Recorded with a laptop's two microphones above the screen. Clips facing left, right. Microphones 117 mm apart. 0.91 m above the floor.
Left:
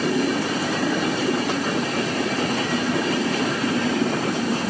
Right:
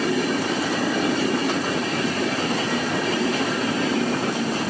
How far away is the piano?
No piano in this recording.